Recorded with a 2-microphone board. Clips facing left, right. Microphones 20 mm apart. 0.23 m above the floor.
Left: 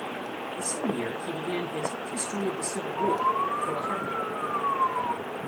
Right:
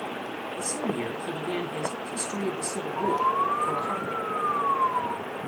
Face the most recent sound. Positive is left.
turn(degrees=-25)  # may be behind; listen again after turning